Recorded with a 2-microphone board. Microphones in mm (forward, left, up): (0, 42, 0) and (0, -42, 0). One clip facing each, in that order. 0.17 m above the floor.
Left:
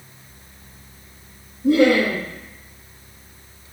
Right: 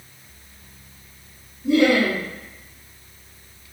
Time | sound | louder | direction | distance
1.6 | laughter | left 2 dB | 50° left (ahead or behind) | 1.9 m